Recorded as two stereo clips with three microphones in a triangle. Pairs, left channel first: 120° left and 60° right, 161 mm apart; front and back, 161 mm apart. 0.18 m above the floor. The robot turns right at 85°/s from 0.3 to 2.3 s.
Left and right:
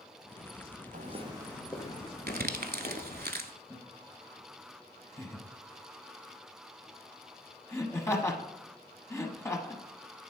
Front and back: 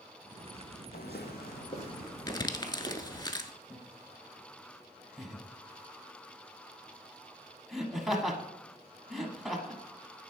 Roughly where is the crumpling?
Right.